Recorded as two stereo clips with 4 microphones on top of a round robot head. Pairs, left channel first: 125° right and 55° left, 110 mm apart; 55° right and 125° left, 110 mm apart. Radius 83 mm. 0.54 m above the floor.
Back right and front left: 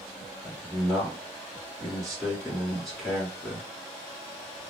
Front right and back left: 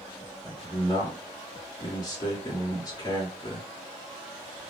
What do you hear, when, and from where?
0.4 s a man speaking: 40° right, 1.5 m